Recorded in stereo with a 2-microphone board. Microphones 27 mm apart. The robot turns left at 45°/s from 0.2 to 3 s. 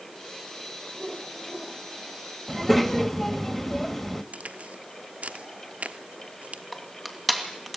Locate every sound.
0.9 s a whoosh: 170° right, 4 m; by 1.8 s 150° left, 4 m
2.5 s a child speaking: 5° right (ahead or behind), 1.3 m; by 4.2 s 15° left (ahead or behind), 1.3 m
4.3 s a crack: 65° right (ahead or behind), 1.2 m
6.7 s crushing: centre (ahead or behind), 2.5 m